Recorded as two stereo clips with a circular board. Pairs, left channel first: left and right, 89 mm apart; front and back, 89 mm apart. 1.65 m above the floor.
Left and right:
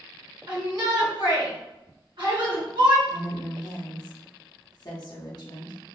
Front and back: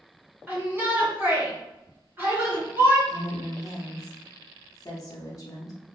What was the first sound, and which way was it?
A shout, 115° right.